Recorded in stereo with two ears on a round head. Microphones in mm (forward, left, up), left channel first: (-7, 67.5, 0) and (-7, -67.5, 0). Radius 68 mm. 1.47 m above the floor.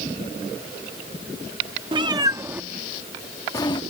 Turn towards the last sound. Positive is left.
turn(degrees=30)  # may be behind; listen again after turning